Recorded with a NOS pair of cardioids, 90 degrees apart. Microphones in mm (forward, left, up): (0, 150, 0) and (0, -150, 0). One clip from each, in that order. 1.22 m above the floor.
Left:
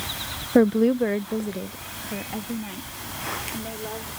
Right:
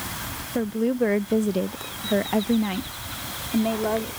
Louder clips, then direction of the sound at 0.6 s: Left 6 dB; 45° left.